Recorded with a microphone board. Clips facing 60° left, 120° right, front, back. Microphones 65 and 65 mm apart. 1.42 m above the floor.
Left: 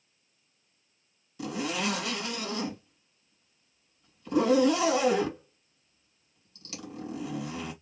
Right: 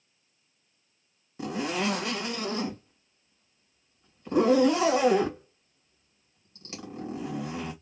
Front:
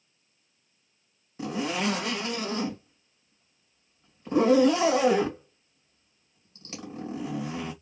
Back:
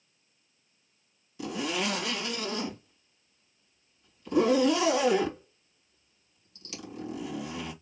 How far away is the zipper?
About 2 m.